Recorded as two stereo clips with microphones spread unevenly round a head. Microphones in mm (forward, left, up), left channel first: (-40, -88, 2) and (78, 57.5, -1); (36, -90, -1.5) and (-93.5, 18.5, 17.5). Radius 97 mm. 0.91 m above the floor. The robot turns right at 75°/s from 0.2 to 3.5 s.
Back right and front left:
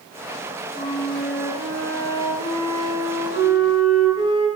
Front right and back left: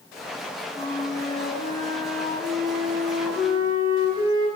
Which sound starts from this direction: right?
A flute, at 0.7 s.